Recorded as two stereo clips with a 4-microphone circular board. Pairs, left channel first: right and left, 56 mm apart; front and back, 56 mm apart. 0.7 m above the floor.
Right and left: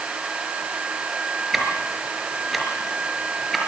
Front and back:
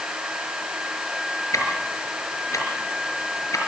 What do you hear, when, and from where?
1.5 s ticking: 5° left, 5 m